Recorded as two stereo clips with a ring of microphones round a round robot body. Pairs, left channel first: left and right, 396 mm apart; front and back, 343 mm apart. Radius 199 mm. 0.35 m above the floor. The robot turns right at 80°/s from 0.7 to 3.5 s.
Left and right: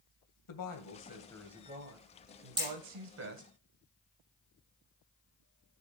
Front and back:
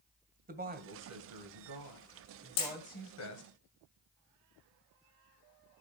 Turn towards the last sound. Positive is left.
turn(degrees=65)